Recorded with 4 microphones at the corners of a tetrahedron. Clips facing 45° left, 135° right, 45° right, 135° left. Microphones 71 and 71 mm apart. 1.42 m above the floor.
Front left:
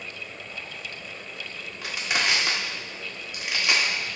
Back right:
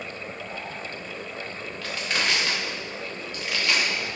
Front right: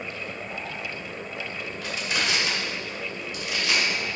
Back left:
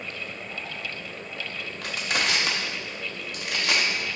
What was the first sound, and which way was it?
Crushing, 120° left.